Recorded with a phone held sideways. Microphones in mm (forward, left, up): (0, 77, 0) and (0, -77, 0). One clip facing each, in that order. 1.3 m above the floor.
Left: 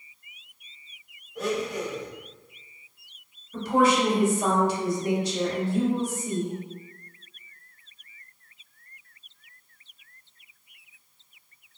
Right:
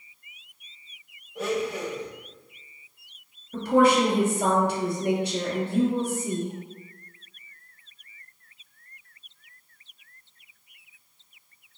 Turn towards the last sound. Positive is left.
turn(degrees=-60)  # may be behind; listen again after turning